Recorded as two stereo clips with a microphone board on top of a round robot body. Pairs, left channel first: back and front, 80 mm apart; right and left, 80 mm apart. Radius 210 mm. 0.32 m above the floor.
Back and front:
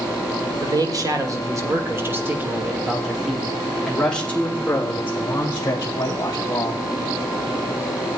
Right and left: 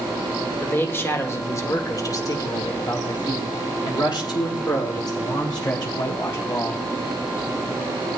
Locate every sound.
0.6 s a man speaking: 25° right, 2 m; by 6.8 s 130° right, 3 m